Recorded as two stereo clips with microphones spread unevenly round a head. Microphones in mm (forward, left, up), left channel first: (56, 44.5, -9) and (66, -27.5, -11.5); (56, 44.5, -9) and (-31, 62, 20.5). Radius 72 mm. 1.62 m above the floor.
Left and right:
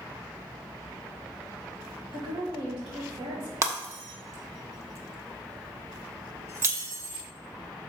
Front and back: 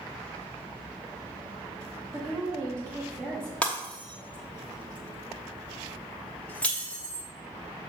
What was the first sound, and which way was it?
A woman speaking, 115° right.